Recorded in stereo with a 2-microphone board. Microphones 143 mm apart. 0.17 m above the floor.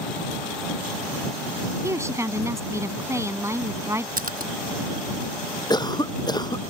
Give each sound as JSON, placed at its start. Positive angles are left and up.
{"t": 1.8, "sound": "a woman speaking", "side_deg": -20}
{"t": 4.2, "sound": "a splash", "side_deg": -85}
{"t": 5.7, "sound": "a cough", "side_deg": 30}